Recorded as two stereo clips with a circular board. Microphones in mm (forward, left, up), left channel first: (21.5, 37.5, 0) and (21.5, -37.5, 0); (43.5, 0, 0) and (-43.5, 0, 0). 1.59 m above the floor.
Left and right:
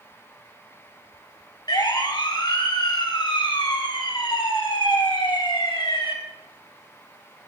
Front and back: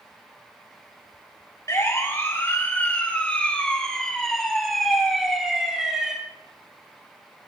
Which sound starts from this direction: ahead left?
A siren, at 1.7 s.